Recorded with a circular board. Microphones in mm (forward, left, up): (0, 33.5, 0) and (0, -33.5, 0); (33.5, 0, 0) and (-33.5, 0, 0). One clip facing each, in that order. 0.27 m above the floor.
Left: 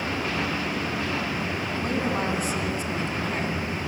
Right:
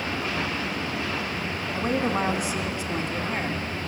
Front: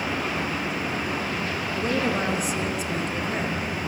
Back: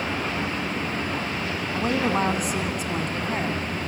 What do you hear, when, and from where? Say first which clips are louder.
1.7 s a woman speaking: right 3 dB, back 2 dB; 160° right, 1.8 m